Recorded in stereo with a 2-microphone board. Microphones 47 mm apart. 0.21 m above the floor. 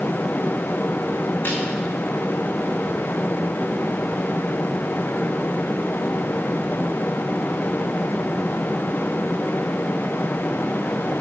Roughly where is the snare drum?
Left.